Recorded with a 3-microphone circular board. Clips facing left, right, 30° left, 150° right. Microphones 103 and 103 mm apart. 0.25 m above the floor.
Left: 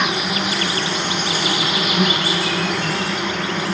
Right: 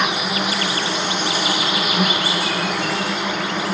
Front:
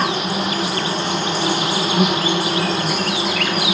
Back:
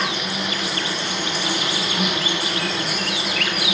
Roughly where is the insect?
Ahead.